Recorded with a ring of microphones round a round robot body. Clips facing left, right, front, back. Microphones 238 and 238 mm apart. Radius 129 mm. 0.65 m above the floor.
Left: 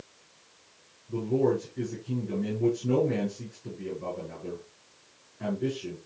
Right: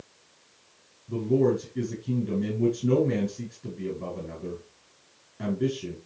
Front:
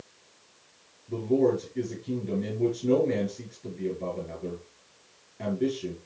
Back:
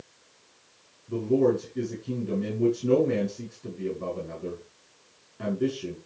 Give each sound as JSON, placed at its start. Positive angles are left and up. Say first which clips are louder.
{"t": 1.1, "sound": "a man speaking", "louder": "right 2 dB, back 1 dB", "azimuth_deg": -105, "distance_m": 6.0}